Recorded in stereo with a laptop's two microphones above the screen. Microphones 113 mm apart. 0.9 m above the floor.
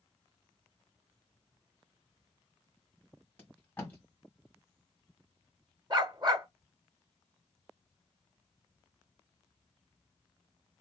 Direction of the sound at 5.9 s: 40° right (ahead or behind).